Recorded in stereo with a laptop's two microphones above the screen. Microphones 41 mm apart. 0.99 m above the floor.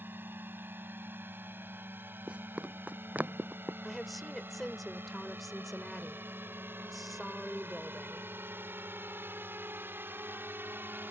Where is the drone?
60° right (ahead or behind); by 11.1 s 65° right (ahead or behind).